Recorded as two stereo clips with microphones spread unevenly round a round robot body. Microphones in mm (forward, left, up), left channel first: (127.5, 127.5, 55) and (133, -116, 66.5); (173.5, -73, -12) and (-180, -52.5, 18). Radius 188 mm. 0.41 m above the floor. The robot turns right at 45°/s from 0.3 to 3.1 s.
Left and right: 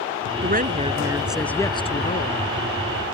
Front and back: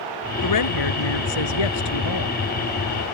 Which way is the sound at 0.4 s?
40° right.